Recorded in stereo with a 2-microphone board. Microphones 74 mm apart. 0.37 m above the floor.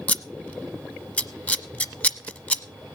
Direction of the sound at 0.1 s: 20° left (ahead or behind).